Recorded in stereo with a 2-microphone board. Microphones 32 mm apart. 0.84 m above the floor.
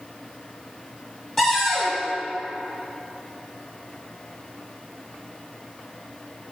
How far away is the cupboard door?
About 2.5 m.